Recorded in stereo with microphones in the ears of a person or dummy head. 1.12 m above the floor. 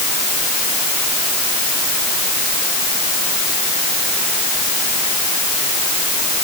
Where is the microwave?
I don't hear a microwave.